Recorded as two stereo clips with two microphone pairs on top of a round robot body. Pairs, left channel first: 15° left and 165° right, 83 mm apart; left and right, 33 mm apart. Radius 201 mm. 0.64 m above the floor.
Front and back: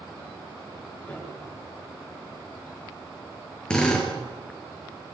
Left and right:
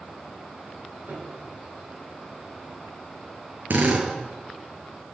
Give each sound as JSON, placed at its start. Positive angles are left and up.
{"t": 1.1, "sound": "a piano", "azimuth_deg": -55, "distance_m": 9.5}
{"t": 3.7, "sound": "a drill", "azimuth_deg": -65, "distance_m": 6.5}